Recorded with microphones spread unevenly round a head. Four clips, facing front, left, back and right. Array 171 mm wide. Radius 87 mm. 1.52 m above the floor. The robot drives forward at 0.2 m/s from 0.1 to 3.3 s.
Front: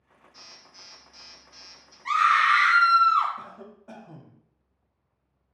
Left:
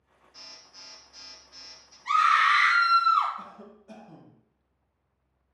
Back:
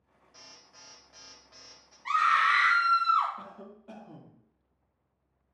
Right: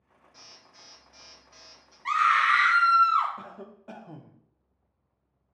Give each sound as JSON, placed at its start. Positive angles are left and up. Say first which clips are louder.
{"t": 0.3, "sound": "an alarm", "louder": "left 1 dB, front 2 dB", "azimuth_deg": -150, "distance_m": 1.1}
{"t": 2.0, "sound": "a scream", "louder": "left 1 dB, front 4 dB", "azimuth_deg": -80, "distance_m": 1.7}
{"t": 3.4, "sound": "a cough", "louder": "right 1 dB, front 2 dB", "azimuth_deg": -60, "distance_m": 0.5}